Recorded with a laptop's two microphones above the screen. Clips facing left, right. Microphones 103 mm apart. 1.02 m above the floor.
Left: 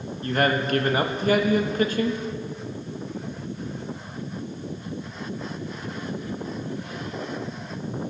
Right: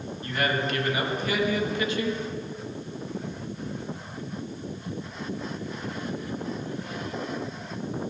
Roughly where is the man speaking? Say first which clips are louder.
Left 5 dB; left.